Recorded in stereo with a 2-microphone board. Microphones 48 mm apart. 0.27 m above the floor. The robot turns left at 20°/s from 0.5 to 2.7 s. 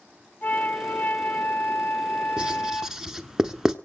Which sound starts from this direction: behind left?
A flute, at 0.4 s.